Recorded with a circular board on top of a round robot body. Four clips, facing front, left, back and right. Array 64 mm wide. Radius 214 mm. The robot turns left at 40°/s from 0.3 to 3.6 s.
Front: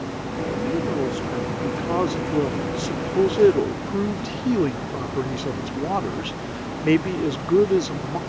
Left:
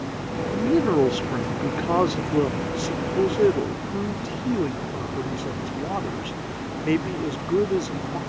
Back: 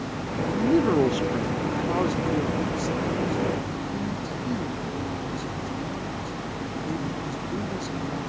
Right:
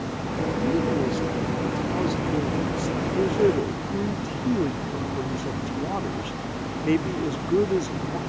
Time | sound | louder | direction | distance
0.5 | a man speaking | left 5 dB, back 5 dB | 130° left | ?